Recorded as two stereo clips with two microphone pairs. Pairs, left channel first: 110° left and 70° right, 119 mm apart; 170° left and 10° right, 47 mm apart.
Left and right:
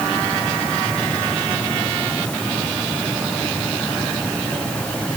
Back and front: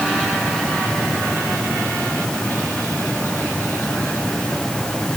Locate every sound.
Only background noise.